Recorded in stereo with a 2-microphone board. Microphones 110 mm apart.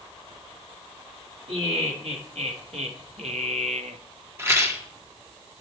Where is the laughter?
70° right (ahead or behind), 1.9 m; by 4.0 s 85° right, 0.6 m.